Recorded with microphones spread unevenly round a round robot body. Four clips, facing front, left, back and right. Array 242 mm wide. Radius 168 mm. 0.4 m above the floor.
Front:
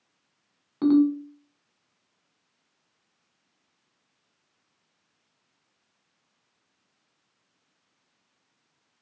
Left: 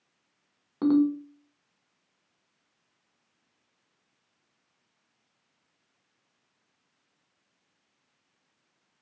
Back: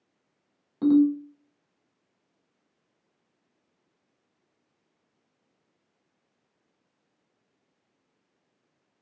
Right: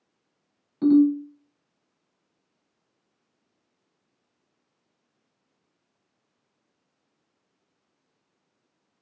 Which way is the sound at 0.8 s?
55° left.